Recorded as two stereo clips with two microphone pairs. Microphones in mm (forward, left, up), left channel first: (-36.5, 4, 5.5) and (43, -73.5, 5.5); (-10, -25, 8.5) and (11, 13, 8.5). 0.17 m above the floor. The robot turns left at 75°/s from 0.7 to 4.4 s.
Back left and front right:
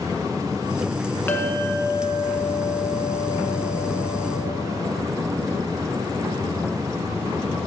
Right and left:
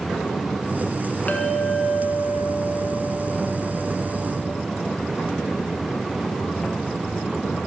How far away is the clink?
About 1.1 m.